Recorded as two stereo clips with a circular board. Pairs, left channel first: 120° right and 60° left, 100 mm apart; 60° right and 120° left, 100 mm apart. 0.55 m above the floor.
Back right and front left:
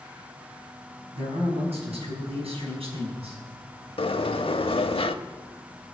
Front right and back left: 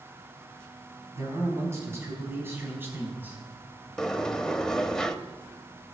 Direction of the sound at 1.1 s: 60° left.